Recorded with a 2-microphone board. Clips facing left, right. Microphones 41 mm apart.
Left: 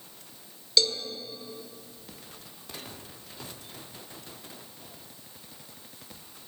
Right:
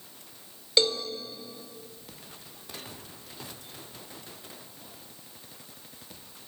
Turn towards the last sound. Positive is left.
turn(degrees=-30)  # may be behind; listen again after turning